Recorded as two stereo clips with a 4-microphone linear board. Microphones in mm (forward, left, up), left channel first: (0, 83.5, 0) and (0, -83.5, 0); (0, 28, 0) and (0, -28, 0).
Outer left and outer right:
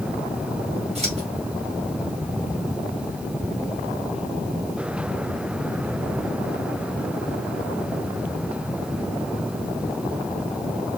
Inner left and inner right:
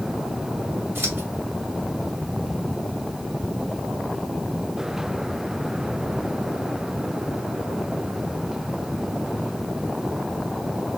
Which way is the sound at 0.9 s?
40° right (ahead or behind).